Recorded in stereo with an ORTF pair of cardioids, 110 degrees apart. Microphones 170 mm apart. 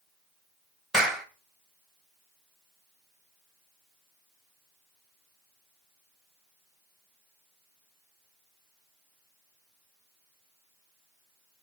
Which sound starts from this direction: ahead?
A clap, at 0.9 s.